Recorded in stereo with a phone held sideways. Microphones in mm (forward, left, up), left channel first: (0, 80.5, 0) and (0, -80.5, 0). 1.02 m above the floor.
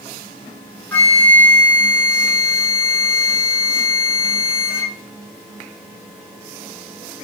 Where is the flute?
15° left (ahead or behind), 0.9 m.